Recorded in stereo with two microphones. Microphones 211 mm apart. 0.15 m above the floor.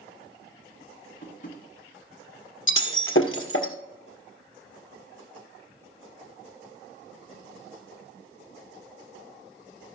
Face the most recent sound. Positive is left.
turn(degrees=70)  # may be behind; listen again after turning